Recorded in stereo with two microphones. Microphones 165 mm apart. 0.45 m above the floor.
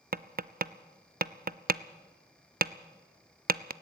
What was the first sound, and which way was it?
Tapping, 65° right (ahead or behind).